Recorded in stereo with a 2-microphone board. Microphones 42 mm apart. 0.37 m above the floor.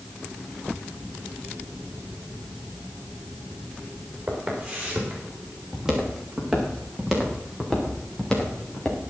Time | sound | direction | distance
4.3 | footsteps | 25° right (ahead or behind) | 7.5 m